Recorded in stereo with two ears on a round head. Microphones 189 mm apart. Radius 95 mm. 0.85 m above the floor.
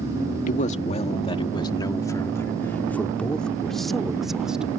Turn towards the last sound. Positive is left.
turn(degrees=-5)  # may be behind; listen again after turning